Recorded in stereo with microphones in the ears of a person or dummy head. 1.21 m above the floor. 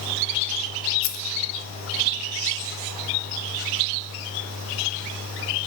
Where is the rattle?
70° left (ahead or behind), 0.8 m.